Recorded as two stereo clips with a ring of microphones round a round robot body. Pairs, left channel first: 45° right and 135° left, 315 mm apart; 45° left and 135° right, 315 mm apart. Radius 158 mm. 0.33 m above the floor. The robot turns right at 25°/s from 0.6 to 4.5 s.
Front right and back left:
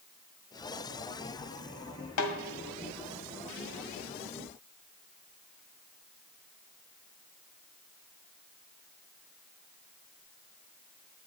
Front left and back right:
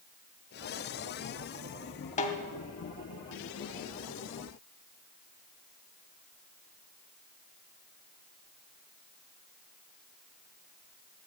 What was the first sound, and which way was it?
A snare drum, 20° right.